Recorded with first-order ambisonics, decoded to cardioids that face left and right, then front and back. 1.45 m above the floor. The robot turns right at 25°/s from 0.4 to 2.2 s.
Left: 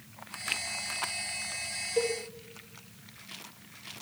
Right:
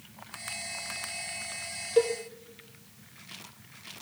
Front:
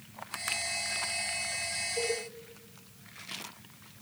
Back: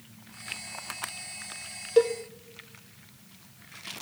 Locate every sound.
2.0 s a cowbell: 155° right, 0.9 m; by 2.1 s 150° right, 0.9 m